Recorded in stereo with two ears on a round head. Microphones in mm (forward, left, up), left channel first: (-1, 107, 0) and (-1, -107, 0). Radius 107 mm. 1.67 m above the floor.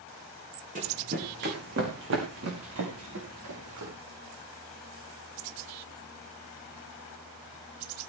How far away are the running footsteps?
About 5 m.